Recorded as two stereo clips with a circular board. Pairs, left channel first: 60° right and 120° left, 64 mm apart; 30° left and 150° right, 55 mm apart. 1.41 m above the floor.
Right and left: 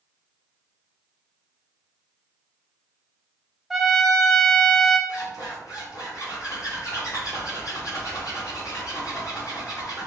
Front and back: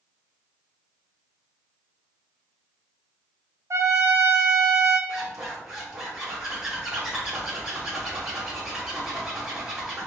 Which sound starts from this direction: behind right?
A trumpet, at 3.7 s.